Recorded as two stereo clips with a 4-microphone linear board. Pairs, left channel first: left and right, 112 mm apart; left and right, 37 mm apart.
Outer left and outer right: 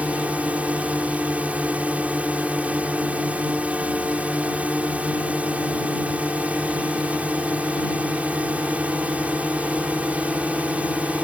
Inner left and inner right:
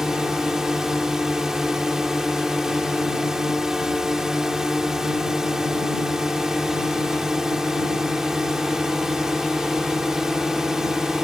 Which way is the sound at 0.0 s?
15° right (ahead or behind).